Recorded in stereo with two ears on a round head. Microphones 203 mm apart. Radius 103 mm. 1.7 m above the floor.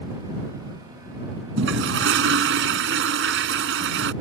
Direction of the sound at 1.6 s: 55° right (ahead or behind).